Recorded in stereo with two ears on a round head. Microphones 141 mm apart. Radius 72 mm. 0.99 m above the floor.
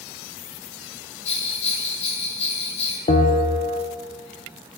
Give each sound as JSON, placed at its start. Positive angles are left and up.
{"t": 1.2, "sound": "a bell", "side_deg": 40, "distance_m": 3.5}
{"t": 3.1, "sound": "a bell", "side_deg": 45, "distance_m": 1.6}